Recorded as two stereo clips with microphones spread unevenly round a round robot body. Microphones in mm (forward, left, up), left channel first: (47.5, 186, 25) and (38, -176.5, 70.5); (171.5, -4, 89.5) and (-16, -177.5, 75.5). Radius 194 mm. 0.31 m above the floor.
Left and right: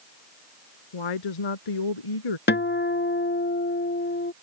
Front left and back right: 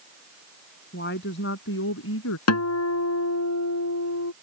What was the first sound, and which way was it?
A woman speaking, 105° left.